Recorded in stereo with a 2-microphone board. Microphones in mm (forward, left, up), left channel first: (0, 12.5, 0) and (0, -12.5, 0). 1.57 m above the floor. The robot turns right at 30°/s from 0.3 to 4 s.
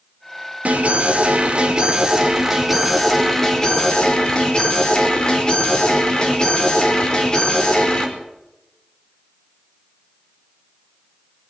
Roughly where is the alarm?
Ahead right.